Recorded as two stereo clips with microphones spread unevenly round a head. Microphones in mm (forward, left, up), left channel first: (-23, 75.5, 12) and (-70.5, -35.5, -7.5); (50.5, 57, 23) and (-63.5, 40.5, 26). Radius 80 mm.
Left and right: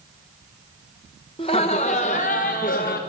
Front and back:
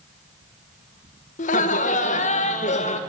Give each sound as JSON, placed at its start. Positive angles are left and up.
{"t": 1.4, "sound": "laughter", "azimuth_deg": 5, "distance_m": 1.7}